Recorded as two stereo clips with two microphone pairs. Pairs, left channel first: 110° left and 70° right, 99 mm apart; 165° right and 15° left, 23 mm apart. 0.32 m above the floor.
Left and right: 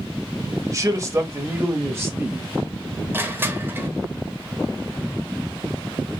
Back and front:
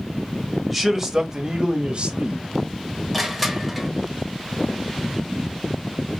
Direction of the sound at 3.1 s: 75° right.